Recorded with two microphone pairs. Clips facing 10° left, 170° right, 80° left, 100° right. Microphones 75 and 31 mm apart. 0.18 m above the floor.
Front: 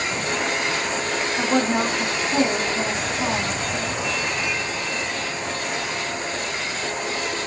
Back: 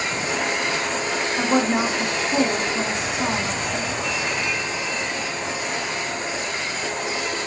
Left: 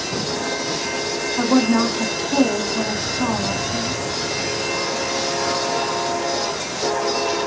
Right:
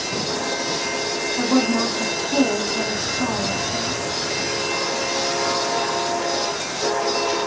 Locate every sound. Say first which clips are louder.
1.4 s a woman speaking: back 1 dB, left 3 dB; 115° left, 1.2 m